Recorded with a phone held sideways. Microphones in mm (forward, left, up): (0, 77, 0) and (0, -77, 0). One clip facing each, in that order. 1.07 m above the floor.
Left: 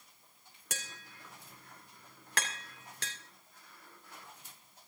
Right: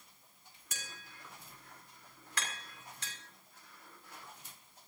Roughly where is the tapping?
Left.